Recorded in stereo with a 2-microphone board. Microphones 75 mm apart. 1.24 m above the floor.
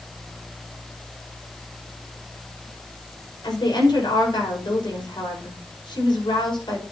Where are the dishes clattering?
No dishes clattering in this recording.